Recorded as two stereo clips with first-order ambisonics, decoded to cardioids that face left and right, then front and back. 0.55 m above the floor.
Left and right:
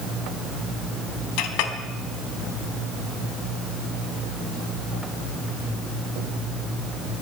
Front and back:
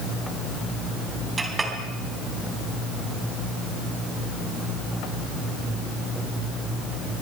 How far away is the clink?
About 3 m.